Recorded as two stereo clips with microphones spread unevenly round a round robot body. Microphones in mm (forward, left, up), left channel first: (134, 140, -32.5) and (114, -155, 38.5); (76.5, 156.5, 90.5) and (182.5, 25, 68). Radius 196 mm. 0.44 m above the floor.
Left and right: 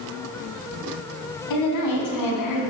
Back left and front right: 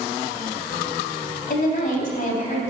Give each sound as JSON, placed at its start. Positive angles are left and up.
{"t": 1.5, "sound": "a woman speaking", "azimuth_deg": 95, "distance_m": 3.0}